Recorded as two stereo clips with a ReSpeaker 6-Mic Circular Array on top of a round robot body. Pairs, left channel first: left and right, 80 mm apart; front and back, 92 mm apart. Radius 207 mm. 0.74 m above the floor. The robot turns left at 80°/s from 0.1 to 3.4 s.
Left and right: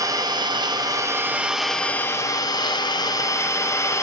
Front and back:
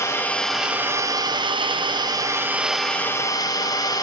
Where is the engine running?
55° right, 0.9 m; by 4.0 s 40° left, 0.9 m.